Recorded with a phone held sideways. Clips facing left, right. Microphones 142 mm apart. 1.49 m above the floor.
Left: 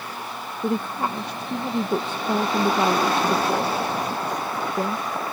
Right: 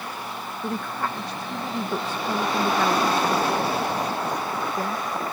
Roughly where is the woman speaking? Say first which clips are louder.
Left 5 dB; left.